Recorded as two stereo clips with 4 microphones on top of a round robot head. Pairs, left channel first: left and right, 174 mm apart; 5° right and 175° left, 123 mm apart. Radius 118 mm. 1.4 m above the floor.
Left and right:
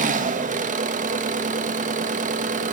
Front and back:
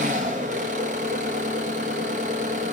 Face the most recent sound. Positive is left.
turn(degrees=-135)